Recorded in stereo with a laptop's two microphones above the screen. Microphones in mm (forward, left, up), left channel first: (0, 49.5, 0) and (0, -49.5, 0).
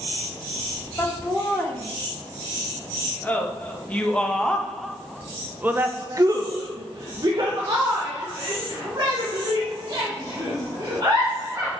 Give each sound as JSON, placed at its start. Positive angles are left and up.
{"t": 1.0, "sound": "laughter", "side_deg": 20, "distance_m": 3.0}